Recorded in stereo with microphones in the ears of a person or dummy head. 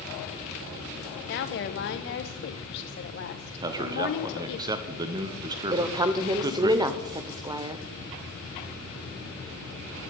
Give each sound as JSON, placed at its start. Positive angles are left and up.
{"t": 1.3, "sound": "a woman speaking", "side_deg": 45, "distance_m": 0.9}
{"t": 3.6, "sound": "a man speaking", "side_deg": -20, "distance_m": 0.8}
{"t": 5.7, "sound": "a woman speaking", "side_deg": -15, "distance_m": 0.6}